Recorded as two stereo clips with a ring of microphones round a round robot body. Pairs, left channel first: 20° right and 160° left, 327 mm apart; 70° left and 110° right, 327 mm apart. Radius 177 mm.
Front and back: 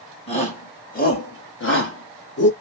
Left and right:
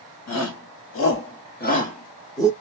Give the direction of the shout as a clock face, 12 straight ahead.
10 o'clock.